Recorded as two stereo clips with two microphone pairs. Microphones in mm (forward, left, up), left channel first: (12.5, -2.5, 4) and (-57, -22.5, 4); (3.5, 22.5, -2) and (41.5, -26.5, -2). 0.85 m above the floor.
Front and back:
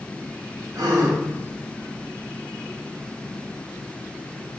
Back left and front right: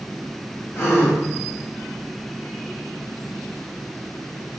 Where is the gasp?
175° left, 1.1 m.